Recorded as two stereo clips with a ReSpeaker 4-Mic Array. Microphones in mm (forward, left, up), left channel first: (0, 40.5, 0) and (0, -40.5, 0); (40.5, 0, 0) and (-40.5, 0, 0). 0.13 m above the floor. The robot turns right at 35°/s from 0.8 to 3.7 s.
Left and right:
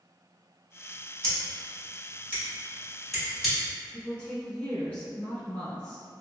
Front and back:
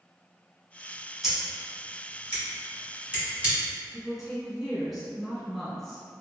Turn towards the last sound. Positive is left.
turn(degrees=90)